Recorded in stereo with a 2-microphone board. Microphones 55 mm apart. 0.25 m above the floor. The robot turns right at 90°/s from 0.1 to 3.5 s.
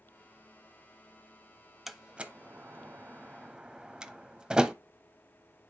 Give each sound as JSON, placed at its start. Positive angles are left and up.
{"t": 1.9, "sound": "a door slam", "side_deg": -5, "distance_m": 0.8}